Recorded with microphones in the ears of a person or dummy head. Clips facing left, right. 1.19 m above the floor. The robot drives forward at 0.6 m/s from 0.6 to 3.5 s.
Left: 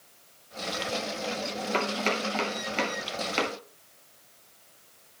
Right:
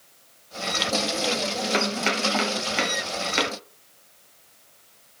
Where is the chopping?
10° right (ahead or behind), 3 m; by 3.5 s 15° right (ahead or behind), 1.9 m.